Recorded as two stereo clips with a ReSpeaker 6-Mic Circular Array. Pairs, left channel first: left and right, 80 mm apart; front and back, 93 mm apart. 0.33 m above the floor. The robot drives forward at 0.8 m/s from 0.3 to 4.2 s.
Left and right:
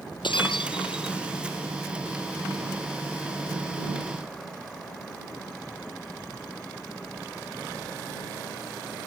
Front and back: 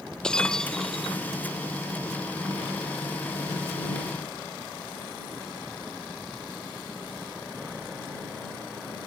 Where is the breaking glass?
80° left; by 1.2 s 90° left.